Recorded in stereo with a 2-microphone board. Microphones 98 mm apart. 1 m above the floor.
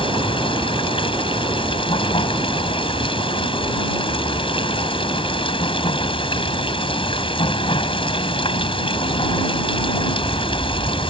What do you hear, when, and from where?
0.0 s running water: 65° left (ahead or behind)